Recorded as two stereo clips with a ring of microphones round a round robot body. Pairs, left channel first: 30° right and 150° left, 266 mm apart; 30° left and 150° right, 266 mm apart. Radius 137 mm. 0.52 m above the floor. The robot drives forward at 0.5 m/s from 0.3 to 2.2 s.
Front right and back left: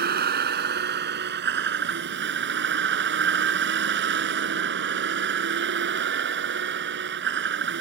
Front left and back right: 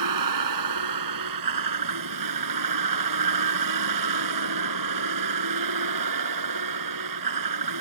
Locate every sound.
0.0 s a vehicle: 155° right; by 7.8 s 160° right